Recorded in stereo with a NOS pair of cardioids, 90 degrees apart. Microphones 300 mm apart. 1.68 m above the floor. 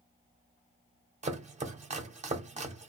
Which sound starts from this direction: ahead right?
Chopping, at 1.2 s.